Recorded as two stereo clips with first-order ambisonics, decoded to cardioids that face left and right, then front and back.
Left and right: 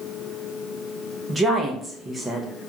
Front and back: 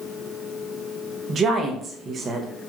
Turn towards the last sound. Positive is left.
turn(degrees=-160)